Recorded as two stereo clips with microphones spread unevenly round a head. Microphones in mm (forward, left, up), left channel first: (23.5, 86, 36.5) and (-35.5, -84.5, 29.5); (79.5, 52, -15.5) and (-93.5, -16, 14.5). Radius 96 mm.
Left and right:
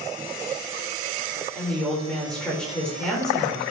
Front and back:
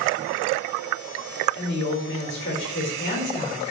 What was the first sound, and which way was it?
A woman speaking, 15° right.